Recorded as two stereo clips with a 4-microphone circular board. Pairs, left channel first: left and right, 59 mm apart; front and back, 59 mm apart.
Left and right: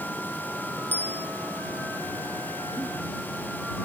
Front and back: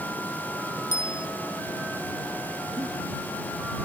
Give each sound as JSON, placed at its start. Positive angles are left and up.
{"t": 0.9, "sound": "a bicycle bell", "azimuth_deg": 35}
{"t": 2.8, "sound": "a giggle", "azimuth_deg": -135}